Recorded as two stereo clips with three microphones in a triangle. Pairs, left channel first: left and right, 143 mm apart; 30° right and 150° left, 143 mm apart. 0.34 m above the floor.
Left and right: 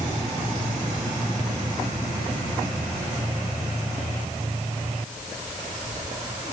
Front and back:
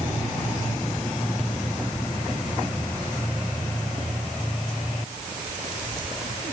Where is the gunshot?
I don't hear a gunshot.